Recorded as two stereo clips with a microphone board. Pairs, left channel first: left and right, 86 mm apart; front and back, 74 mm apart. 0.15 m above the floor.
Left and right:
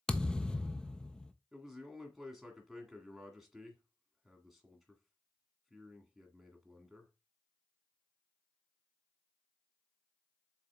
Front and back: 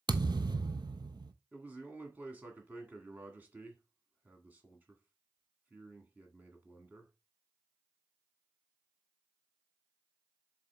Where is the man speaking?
175° right, 1.7 m.